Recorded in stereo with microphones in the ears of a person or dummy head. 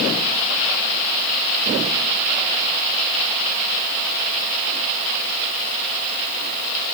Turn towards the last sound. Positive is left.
No sound to turn to.